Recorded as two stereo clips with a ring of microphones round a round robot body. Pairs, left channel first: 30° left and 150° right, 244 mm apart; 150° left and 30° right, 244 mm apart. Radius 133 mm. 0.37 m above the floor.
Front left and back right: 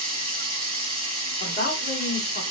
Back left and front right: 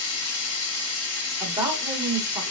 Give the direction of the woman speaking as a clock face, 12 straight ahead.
11 o'clock.